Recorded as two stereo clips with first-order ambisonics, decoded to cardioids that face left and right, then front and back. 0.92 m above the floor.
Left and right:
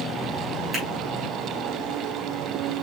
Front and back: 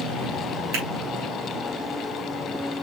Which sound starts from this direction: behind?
A finger snap, at 0.7 s.